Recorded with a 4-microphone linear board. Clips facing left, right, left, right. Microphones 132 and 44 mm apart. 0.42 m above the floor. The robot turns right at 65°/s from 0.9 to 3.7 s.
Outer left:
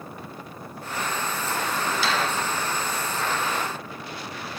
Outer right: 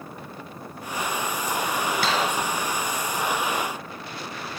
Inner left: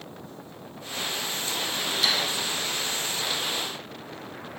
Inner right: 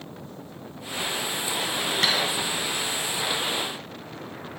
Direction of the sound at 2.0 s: 55° right (ahead or behind).